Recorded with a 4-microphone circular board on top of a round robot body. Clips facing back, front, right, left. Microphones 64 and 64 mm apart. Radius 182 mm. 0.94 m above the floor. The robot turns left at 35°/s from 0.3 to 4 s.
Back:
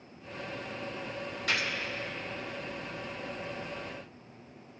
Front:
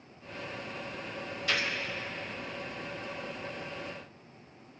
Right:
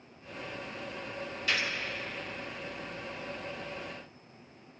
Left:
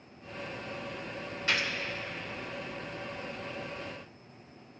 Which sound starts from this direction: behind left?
A gunshot, at 1.5 s.